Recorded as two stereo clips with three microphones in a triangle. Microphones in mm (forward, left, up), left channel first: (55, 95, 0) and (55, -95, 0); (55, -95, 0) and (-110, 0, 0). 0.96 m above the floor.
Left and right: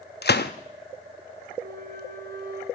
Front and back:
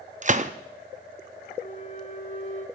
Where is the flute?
70° right, 1.2 m.